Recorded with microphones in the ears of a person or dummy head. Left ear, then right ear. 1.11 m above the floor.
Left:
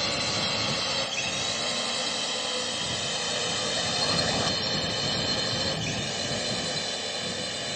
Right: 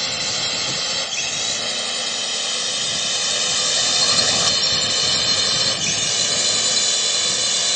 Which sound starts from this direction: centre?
A drone, at 0.0 s.